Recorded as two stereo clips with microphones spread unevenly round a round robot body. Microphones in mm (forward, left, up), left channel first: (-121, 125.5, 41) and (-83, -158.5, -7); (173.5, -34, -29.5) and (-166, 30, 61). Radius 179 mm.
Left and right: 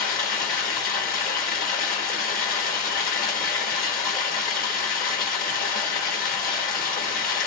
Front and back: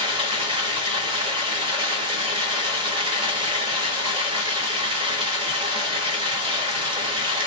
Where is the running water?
75° left, 0.9 m.